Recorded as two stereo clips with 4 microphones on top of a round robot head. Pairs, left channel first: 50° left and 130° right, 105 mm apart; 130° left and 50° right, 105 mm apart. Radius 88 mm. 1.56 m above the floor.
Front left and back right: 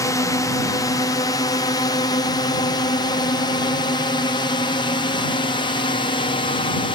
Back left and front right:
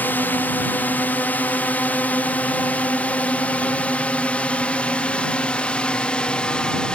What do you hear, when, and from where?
0.0 s a drone: 75° left; by 7.0 s 50° left